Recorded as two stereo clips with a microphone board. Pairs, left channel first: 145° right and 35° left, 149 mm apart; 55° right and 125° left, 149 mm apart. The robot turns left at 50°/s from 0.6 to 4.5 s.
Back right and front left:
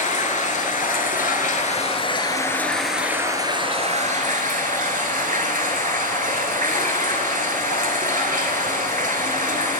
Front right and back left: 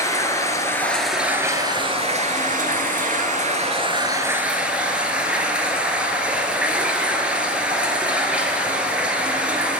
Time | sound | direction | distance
0.0 | running water | 125° right | 0.9 m